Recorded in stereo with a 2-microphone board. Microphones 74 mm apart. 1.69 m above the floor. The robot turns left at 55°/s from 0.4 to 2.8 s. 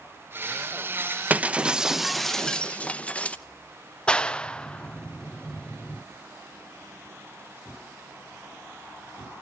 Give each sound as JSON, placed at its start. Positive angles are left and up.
{"t": 1.3, "sound": "breaking glass", "azimuth_deg": -135, "distance_m": 0.9}
{"t": 4.1, "sound": "a clap", "side_deg": 15, "distance_m": 0.5}